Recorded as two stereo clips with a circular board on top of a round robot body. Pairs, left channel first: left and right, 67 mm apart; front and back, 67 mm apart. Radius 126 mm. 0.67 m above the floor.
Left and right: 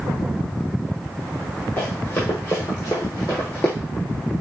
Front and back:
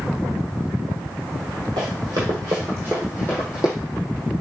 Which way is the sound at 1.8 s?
160° left.